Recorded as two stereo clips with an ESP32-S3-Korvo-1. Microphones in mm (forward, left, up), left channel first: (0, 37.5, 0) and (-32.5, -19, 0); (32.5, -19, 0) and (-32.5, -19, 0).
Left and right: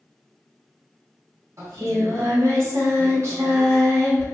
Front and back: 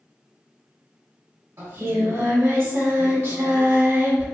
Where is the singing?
140° right, 1.2 m.